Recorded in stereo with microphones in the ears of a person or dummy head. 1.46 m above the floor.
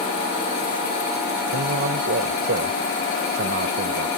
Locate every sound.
1.5 s a man speaking: 60° right (ahead or behind)